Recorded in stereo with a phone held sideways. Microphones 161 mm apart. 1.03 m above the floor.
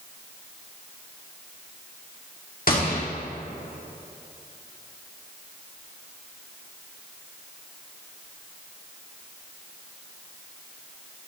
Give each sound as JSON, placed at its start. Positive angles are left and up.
{"t": 2.7, "sound": "a gunshot", "side_deg": 60, "distance_m": 2.0}